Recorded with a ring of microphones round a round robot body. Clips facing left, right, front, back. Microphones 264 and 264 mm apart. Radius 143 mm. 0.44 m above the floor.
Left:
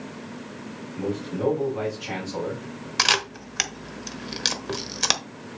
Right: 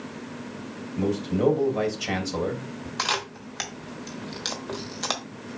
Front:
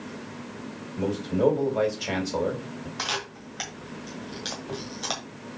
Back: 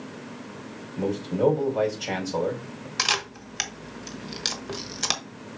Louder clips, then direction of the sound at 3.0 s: Left 2 dB, back 1 dB; 130° left.